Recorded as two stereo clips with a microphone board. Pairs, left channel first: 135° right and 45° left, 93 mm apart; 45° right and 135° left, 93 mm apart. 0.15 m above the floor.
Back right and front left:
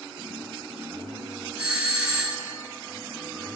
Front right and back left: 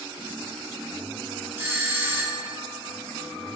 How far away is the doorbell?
About 1.9 m.